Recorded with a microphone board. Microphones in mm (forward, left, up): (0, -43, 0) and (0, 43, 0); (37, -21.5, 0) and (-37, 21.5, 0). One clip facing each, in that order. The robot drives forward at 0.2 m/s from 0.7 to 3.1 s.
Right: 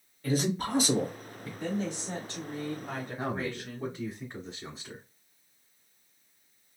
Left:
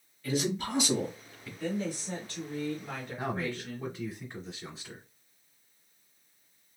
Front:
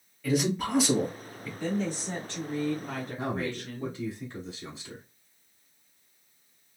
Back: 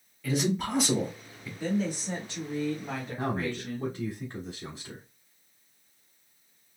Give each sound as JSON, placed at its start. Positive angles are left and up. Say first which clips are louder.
{"t": 0.2, "sound": "a man speaking", "louder": "right 2 dB, front 1 dB", "azimuth_deg": -120, "distance_m": 1.9}
{"t": 1.6, "sound": "a woman speaking", "louder": "even, back 1 dB", "azimuth_deg": -135, "distance_m": 1.5}
{"t": 3.2, "sound": "a man speaking", "louder": "left 1 dB, back 2 dB", "azimuth_deg": -170, "distance_m": 1.5}